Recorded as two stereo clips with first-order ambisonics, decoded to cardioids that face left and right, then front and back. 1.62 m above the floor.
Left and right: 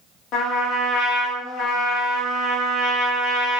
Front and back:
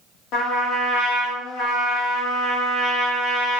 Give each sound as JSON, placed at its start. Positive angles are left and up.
{"t": 0.3, "sound": "a trumpet", "azimuth_deg": 40, "distance_m": 0.8}